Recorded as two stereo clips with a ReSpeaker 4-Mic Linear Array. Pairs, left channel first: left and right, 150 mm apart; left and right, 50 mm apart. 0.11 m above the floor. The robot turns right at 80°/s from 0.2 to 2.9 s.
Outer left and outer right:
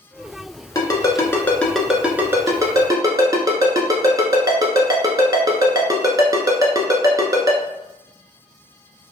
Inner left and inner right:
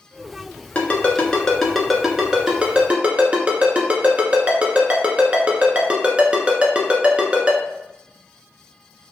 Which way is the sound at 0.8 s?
25° left (ahead or behind).